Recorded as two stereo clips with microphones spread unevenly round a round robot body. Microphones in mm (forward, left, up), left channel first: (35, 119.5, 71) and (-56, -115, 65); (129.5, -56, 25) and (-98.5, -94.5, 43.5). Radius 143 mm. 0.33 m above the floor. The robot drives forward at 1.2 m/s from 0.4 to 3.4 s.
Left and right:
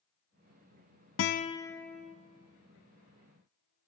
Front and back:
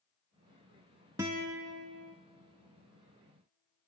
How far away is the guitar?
About 0.5 m.